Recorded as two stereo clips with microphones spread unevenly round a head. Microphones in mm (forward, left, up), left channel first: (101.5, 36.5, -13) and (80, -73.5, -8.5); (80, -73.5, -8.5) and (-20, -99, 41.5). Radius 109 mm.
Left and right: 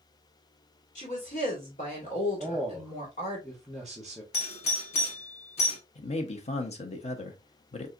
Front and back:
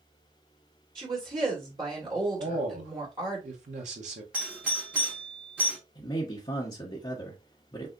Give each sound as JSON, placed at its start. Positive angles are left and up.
{"t": 0.9, "sound": "a woman speaking", "azimuth_deg": 120, "distance_m": 1.7}
{"t": 2.4, "sound": "a man speaking", "azimuth_deg": 170, "distance_m": 0.9}
{"t": 4.3, "sound": "a doorbell", "azimuth_deg": 95, "distance_m": 1.0}
{"t": 6.0, "sound": "a man speaking", "azimuth_deg": 60, "distance_m": 1.0}